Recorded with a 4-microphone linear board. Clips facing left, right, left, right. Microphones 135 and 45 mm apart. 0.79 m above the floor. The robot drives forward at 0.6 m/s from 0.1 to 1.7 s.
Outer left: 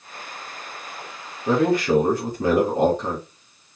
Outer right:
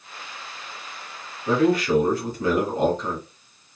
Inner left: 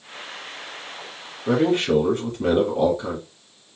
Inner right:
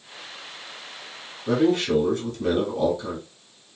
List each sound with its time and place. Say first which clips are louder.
1.5 s a man speaking: outer left 1 dB, inner left 1 dB; 35° left (ahead or behind), 1.9 m